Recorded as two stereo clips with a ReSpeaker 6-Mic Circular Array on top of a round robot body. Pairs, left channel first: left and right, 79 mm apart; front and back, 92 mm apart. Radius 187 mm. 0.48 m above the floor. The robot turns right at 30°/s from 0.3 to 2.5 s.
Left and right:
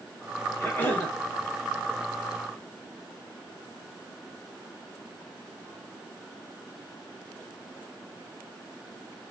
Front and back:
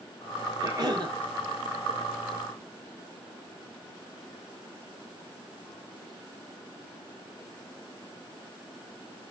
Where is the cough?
145° left, 1.7 m; by 1.1 s 160° left, 1.7 m.